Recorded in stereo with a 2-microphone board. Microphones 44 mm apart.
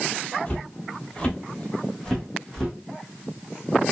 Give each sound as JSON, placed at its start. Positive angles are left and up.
{"t": 0.5, "sound": "footsteps", "side_deg": 30, "distance_m": 1.3}